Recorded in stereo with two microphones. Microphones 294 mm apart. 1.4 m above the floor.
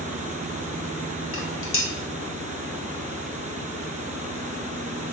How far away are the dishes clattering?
About 0.6 m.